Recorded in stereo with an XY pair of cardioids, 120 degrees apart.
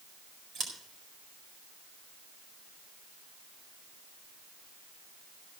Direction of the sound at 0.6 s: 50° right.